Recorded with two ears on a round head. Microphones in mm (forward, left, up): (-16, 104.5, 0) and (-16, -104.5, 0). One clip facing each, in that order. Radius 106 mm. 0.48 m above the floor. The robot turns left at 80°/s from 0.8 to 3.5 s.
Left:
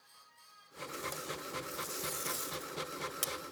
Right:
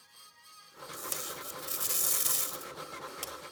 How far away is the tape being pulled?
About 1.4 m.